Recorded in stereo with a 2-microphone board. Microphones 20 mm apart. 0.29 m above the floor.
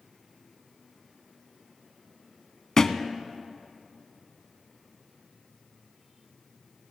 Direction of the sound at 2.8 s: 25° left (ahead or behind).